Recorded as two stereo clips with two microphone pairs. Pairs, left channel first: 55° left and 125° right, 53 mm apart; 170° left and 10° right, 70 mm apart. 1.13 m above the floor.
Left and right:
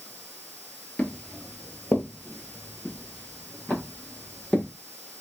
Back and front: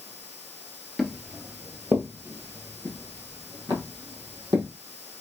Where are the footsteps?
80° left, 1.2 m; by 4.7 s 5° right, 3 m.